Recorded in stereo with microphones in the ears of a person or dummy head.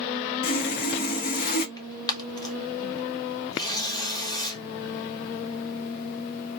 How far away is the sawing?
About 0.8 m.